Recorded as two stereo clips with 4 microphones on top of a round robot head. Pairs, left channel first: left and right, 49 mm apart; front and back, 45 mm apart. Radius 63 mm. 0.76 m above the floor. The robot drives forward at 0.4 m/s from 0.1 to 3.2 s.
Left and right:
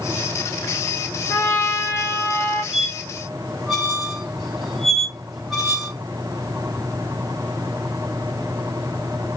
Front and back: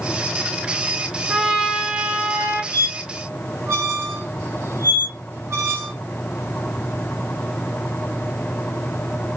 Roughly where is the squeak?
Behind.